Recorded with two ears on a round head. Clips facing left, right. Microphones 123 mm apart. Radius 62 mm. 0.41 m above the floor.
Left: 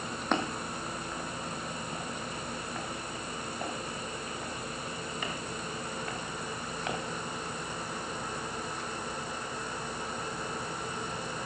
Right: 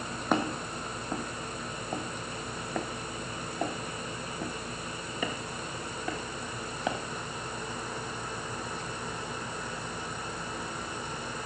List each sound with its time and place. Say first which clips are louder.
0.3 s footsteps: right 3 dB; 5° right (ahead or behind), 1.2 m; by 7.0 s 75° right (ahead or behind), 3.5 m